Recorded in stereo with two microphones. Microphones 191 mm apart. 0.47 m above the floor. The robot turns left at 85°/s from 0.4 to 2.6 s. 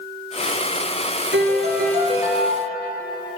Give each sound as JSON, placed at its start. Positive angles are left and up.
{"t": 1.3, "sound": "a piano", "azimuth_deg": -85, "distance_m": 1.5}